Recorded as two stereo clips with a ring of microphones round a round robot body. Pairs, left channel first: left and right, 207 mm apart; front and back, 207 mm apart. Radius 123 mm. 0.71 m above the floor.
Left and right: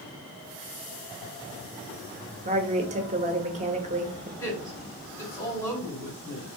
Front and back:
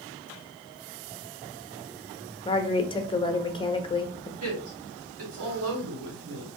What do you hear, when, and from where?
2.5 s a woman speaking: 55° right, 0.8 m
4.4 s a woman speaking: 170° left, 2.5 m